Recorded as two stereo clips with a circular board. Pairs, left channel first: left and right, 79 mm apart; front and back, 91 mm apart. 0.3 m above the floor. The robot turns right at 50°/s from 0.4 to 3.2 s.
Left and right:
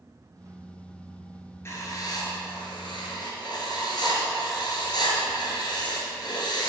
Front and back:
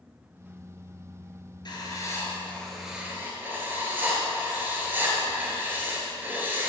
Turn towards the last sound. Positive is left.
turn(degrees=110)